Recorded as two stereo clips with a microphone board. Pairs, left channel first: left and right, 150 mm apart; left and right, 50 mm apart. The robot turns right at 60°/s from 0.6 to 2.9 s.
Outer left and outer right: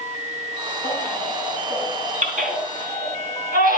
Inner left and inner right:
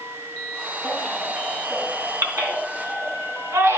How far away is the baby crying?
About 3 m.